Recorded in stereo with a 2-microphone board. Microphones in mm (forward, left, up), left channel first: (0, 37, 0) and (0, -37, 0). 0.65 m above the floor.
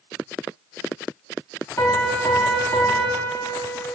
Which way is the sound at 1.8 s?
40° left (ahead or behind).